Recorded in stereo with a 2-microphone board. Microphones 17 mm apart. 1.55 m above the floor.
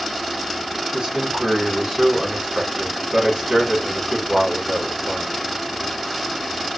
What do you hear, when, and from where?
0.9 s a man speaking: 75° right (ahead or behind), 2.0 m